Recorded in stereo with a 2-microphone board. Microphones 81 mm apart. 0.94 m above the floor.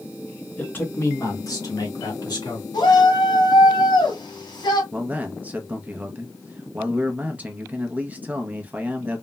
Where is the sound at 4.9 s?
20° right (ahead or behind), 0.7 m.